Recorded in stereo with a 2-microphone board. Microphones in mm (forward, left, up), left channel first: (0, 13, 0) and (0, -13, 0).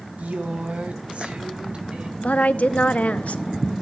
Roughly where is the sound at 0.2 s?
Right.